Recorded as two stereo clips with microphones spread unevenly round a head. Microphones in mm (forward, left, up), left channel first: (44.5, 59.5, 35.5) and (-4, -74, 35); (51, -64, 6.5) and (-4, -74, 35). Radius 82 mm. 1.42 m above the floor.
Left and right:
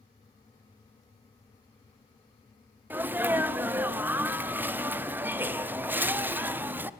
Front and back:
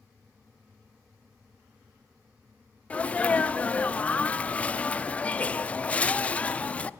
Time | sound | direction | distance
2.9 | a sneeze | 35° right | 0.6 m